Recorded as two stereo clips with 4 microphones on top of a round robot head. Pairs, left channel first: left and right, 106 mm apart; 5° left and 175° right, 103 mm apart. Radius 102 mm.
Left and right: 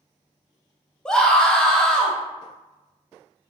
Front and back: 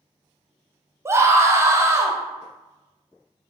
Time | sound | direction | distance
1.1 | a scream | 165° left | 0.6 m